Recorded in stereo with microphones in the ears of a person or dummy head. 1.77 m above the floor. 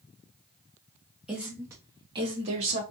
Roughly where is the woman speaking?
Centre.